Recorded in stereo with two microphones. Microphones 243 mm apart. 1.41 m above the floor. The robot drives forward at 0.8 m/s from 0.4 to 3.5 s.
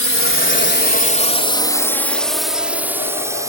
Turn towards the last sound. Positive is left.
turn(degrees=-15)  # may be behind; listen again after turning